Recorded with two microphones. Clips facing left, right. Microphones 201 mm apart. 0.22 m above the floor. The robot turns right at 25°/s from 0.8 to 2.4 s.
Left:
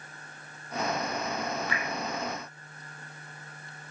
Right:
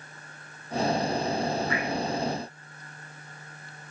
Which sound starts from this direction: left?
Dripping, at 1.7 s.